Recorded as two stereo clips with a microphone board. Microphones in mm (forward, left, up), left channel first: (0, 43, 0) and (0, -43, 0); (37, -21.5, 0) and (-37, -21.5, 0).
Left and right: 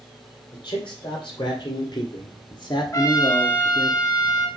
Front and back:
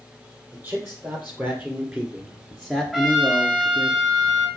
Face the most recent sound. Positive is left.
turn(degrees=90)